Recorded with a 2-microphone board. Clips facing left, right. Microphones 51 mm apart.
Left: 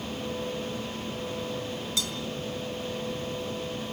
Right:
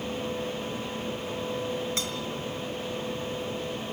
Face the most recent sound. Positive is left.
turn(degrees=-40)  # may be behind; listen again after turning